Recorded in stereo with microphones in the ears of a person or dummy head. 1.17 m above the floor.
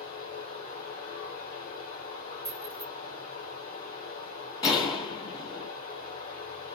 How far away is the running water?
About 1.2 m.